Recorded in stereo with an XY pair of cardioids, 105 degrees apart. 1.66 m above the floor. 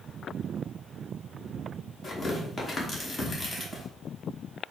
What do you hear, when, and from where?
2.0 s tearing paper: 35° left, 1.6 m